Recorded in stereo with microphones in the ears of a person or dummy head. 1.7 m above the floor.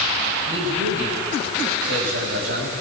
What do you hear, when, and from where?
0.5 s a man speaking: 70° right (ahead or behind), 8.5 m; by 2.7 s 75° right (ahead or behind), 10 m